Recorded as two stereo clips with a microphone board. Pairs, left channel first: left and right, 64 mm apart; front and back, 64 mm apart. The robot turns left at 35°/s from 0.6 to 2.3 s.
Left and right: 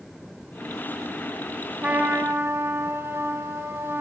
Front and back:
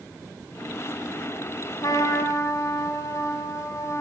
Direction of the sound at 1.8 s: 20° right.